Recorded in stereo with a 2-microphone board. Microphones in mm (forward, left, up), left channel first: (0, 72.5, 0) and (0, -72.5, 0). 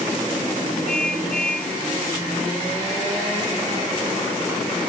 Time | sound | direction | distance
0.9 | a car horn | 5° left (ahead or behind) | ?